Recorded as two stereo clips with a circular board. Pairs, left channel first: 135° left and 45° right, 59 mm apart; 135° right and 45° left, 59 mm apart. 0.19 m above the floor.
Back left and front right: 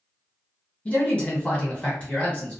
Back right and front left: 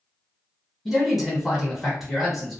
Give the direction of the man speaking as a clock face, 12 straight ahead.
8 o'clock.